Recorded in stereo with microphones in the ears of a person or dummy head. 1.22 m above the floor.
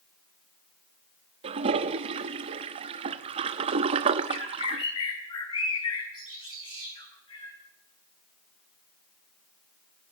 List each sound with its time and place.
1.4 s a toilet flushing: 35° right (ahead or behind), 1.0 m
4.3 s a bird: 25° left (ahead or behind), 6.5 m